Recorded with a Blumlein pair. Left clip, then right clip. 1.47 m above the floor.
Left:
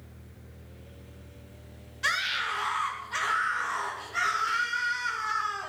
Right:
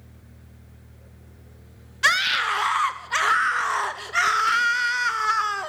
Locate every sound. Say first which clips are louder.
2.0 s a scream: right 8 dB; 65° right, 0.7 m